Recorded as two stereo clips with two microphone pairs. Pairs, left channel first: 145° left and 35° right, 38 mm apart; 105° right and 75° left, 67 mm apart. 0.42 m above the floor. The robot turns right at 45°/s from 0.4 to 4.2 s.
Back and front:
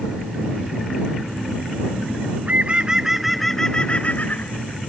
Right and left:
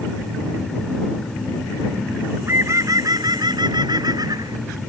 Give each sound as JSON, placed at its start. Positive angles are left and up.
{"t": 2.2, "sound": "a bird", "azimuth_deg": 5}